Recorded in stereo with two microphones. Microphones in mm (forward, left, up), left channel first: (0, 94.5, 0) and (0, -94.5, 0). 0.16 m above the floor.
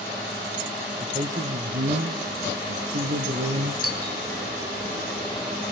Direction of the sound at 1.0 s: 35° right (ahead or behind).